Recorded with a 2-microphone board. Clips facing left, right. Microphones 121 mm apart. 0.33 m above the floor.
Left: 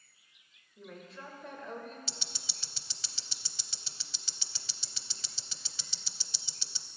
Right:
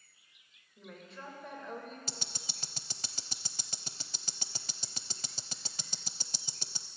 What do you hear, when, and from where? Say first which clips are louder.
0.8 s a woman speaking: left 1 dB; centre (ahead or behind), 1.4 m
2.1 s ticking: right 2 dB; 45° right (ahead or behind), 0.5 m